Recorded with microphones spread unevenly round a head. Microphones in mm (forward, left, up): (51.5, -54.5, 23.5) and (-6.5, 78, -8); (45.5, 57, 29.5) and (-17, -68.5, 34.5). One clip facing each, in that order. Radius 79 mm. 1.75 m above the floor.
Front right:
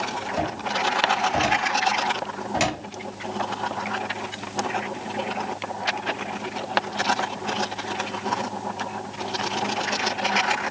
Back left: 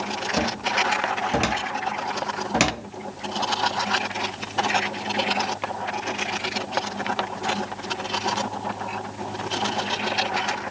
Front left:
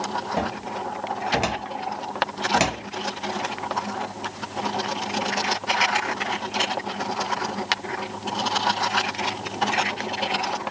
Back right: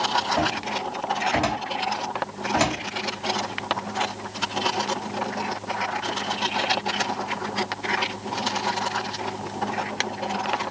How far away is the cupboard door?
About 1.1 m.